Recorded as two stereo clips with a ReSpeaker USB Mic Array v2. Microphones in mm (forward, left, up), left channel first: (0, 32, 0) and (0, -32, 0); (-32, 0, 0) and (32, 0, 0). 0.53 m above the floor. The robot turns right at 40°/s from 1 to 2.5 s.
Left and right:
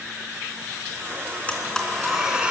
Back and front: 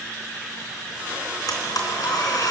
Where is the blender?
160° left, 3 m; by 2.5 s 160° right, 3 m.